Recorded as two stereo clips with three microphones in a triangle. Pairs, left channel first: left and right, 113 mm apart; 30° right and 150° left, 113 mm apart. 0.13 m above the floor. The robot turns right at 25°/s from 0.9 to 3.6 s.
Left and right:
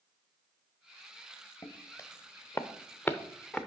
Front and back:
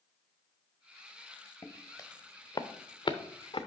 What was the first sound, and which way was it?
Footsteps, 30° left.